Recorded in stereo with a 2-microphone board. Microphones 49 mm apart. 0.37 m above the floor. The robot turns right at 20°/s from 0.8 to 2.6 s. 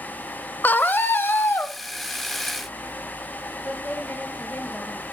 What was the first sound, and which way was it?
A scream, 40° left (ahead or behind).